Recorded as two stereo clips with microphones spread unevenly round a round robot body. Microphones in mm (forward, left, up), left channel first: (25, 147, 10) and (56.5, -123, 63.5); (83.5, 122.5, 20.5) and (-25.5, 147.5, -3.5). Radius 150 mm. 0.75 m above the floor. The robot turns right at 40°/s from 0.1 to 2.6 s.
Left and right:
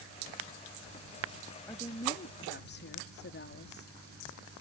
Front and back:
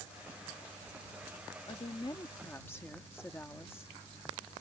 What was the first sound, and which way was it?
A woman speaking, 25° left.